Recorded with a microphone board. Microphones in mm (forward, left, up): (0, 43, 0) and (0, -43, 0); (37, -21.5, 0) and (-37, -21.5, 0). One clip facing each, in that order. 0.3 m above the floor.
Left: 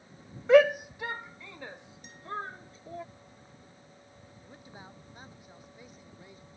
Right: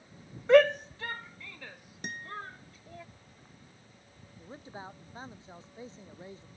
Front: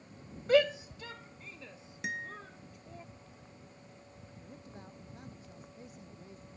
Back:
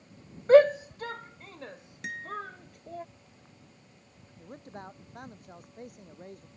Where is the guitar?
85° right.